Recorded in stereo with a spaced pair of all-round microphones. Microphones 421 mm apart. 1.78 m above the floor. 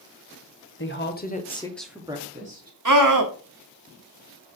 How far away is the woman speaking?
About 0.9 m.